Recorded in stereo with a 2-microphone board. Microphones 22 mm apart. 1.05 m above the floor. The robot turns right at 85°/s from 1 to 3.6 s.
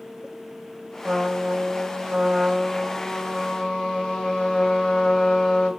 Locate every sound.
1.0 s a trumpet: 150° right, 1.3 m; by 5.7 s 65° left, 1.3 m